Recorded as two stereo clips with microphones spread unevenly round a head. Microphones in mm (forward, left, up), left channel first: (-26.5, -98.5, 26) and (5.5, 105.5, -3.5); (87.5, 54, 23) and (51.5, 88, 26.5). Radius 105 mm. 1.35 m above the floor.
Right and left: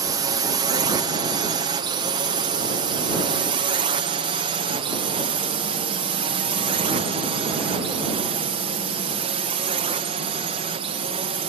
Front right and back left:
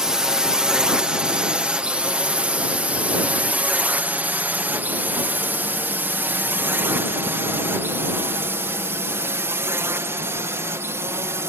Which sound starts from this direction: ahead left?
A drone, at 0.0 s.